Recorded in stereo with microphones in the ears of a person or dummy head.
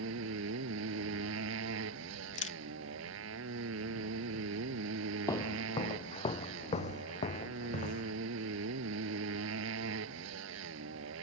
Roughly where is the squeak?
No squeak in this recording.